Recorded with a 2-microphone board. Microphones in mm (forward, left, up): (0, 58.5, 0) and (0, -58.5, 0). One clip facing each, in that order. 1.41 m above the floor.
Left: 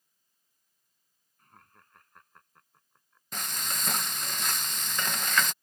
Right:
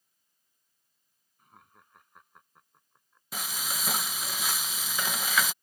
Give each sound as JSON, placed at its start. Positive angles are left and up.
{"t": 1.4, "sound": "laughter", "side_deg": -10}
{"t": 3.3, "sound": "frying", "side_deg": -5}